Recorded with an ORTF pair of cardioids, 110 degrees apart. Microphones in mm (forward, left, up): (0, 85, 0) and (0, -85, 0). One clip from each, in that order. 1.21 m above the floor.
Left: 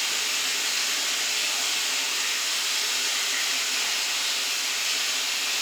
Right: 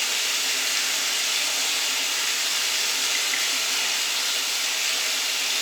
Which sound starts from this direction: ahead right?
Running water, at 0.0 s.